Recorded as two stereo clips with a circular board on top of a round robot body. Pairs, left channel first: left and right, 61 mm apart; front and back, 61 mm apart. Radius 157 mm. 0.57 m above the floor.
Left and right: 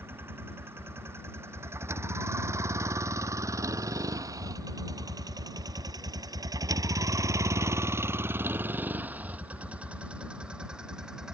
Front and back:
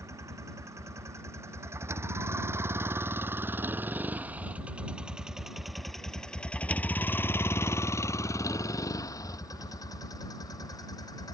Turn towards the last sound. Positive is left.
turn(degrees=-10)